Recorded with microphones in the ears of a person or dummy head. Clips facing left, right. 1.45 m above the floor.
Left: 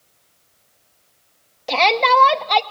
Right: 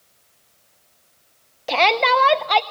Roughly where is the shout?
Centre.